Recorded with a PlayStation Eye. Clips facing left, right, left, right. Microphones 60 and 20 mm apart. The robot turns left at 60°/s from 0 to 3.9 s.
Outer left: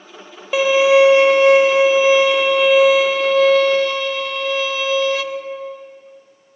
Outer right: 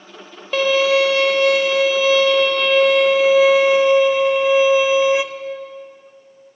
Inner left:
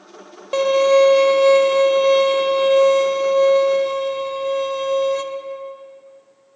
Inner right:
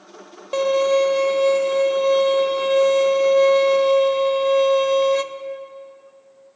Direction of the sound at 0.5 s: 10° left (ahead or behind).